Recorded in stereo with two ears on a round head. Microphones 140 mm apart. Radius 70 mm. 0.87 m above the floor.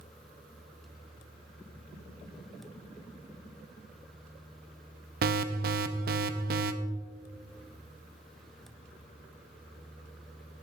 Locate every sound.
5.2 s an alarm: 60° right (ahead or behind), 0.7 m